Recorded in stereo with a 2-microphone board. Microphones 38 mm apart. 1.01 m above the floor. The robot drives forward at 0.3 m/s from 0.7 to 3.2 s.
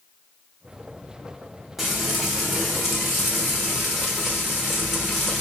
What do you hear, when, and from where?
1.8 s frying: 5° right (ahead or behind), 1.7 m